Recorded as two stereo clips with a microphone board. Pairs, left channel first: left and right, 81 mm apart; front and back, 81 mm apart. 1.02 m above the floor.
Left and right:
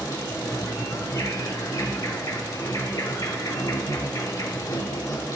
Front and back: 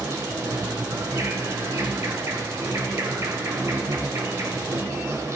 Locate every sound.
0.0 s an insect: 130° left, 1.7 m